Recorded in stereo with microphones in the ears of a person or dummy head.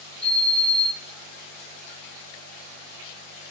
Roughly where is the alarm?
Centre.